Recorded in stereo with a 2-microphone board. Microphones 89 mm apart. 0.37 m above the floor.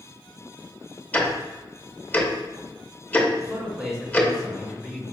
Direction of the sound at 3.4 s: 10° right (ahead or behind).